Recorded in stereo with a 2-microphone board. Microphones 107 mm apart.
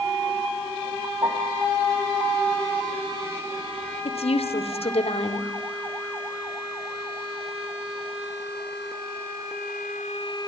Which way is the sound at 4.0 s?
70° left (ahead or behind).